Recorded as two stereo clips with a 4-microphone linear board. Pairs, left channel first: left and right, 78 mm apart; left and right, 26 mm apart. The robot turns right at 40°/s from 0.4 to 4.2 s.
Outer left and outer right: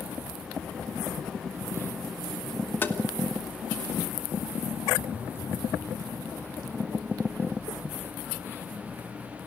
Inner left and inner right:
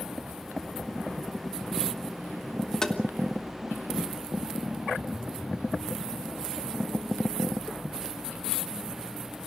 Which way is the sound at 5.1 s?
20° right (ahead or behind).